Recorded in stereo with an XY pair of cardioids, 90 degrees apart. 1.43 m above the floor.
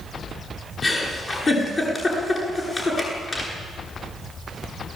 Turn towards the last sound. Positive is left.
turn(degrees=40)